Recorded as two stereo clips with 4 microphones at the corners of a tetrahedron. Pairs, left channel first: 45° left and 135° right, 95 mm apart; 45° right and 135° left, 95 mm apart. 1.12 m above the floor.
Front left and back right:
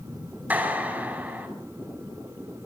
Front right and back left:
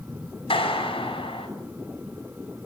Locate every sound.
0.5 s a clap: 60° right, 5.5 m